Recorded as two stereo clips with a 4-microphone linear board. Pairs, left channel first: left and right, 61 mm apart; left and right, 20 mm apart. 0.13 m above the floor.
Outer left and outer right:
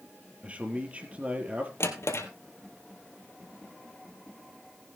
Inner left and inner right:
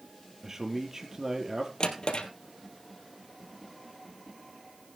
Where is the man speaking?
25° right (ahead or behind), 3.5 m.